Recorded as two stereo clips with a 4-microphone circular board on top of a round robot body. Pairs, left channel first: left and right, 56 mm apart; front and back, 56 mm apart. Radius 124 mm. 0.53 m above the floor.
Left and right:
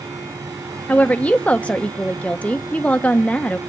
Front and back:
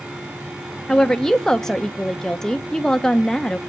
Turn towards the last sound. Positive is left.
turn(degrees=65)